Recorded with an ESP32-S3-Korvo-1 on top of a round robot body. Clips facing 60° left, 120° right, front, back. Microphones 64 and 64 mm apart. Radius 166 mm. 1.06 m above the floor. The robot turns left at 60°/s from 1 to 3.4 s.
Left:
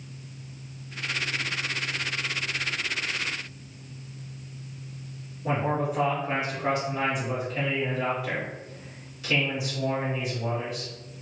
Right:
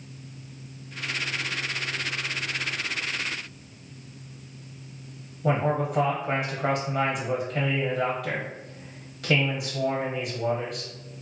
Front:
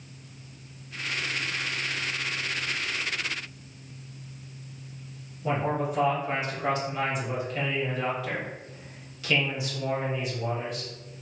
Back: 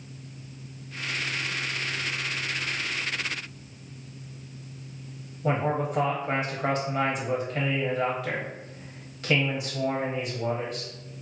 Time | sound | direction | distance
5.4 | a man speaking | 125° right | 0.9 m